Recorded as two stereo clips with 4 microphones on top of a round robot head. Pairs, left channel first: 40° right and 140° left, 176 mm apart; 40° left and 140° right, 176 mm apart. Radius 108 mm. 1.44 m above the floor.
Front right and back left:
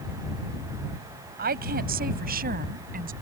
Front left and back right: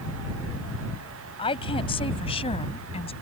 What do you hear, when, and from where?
1.4 s a woman speaking: 100° left